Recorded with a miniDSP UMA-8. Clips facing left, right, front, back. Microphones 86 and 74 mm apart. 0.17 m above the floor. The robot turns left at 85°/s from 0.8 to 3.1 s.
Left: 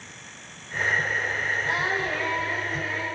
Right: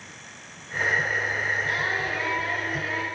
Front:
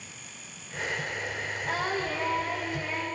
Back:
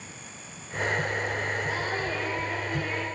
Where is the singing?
30° left, 9.5 m; by 3.1 s 90° right, 9.5 m.